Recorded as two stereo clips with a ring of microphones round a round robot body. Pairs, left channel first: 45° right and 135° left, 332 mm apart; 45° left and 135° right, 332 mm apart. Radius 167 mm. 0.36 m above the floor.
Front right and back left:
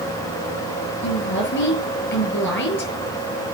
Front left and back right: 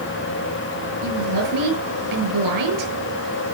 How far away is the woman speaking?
About 6 m.